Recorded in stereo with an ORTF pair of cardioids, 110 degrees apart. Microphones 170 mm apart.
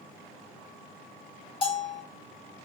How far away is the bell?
About 1.7 m.